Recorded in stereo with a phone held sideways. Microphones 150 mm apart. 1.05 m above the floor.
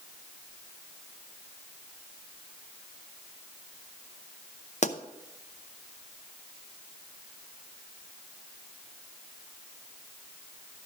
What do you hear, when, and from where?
4.8 s a pop: 50° left (ahead or behind), 0.6 m